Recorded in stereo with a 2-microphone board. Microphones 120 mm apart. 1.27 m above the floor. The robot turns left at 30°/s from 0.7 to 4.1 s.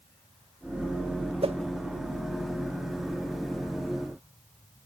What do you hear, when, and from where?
1.4 s a whoosh: 50° right (ahead or behind), 1.2 m; by 1.6 s 55° right (ahead or behind), 1.2 m